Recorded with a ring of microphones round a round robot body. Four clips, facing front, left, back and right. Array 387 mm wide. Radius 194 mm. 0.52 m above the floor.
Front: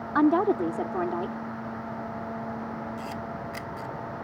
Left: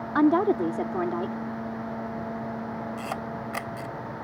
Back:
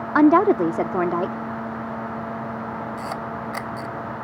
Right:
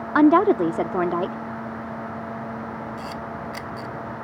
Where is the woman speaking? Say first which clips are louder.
Right 6 dB, back 7 dB; 145° right.